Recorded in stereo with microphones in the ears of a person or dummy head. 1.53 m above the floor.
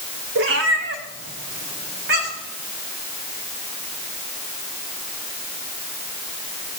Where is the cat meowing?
70° right (ahead or behind), 2.5 m; by 2.5 s 50° right (ahead or behind), 5 m.